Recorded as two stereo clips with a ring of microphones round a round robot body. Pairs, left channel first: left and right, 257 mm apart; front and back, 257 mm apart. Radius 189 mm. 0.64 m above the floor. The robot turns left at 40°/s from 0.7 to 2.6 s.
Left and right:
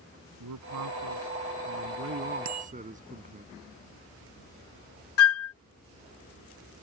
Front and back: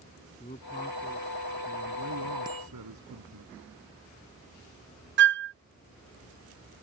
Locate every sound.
0.4 s a man speaking: 75° right; by 3.5 s 150° right
2.5 s a bicycle bell: 100° right; by 2.7 s 105° right
5.2 s a flute: 130° left